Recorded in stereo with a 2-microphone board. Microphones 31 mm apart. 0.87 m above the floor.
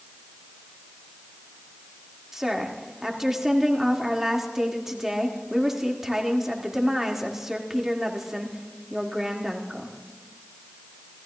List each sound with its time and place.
2.3 s a woman speaking: 10° right (ahead or behind), 1.8 m